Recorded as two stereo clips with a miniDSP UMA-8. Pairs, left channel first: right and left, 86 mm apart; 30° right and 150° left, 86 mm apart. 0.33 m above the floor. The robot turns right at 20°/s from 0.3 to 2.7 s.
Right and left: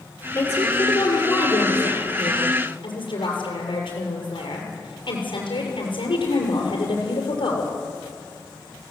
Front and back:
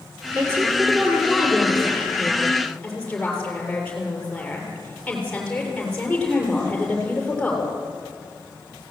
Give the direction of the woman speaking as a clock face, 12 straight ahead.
5 o'clock.